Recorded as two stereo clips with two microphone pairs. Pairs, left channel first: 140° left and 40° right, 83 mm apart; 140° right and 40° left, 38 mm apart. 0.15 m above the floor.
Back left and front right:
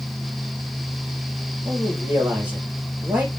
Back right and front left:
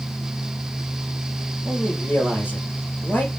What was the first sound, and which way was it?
A man speaking, 115° right.